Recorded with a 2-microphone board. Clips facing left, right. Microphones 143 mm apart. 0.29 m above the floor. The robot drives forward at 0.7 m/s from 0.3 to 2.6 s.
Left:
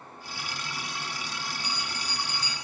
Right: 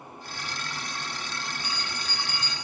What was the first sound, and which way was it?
A bell, 5° right (ahead or behind).